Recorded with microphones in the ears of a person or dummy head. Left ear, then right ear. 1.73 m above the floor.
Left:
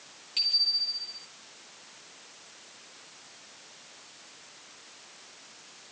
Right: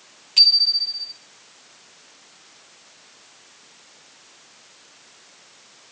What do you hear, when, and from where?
0.4 s a bicycle bell: 25° right (ahead or behind), 2.5 m